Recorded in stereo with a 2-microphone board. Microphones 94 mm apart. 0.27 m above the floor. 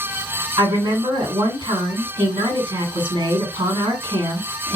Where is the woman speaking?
60° right (ahead or behind), 2 m.